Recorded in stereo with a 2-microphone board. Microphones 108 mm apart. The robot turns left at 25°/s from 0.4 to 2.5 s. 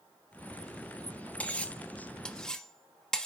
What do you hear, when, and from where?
1.4 s cutlery clinking: 15° left (ahead or behind), 0.7 m; by 3.3 s 5° left (ahead or behind), 0.7 m